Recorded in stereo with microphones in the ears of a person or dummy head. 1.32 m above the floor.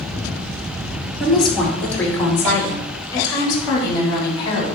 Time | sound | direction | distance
1.2 | a woman speaking | centre (ahead or behind) | 2.5 m